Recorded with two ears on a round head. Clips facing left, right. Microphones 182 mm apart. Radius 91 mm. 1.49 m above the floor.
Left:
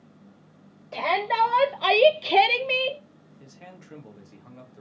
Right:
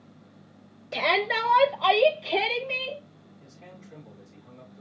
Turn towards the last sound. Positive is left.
turn(degrees=80)